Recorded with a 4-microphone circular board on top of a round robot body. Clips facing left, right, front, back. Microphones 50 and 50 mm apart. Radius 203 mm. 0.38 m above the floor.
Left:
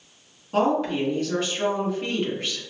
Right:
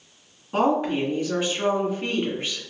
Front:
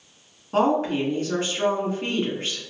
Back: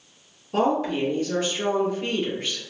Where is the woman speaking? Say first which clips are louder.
Even, front 2 dB; 10° right, 1.7 m.